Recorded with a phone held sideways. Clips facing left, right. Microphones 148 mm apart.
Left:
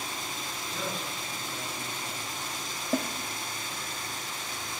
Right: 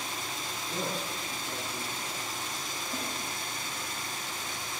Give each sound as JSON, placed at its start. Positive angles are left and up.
{"t": 0.7, "sound": "a man speaking", "side_deg": -35, "distance_m": 10.0}
{"t": 2.9, "sound": "a snare drum", "side_deg": 65, "distance_m": 1.9}